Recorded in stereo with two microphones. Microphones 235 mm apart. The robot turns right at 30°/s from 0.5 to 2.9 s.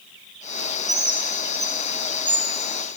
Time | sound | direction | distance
0.9 | a bird | 45° right (ahead or behind) | 0.7 m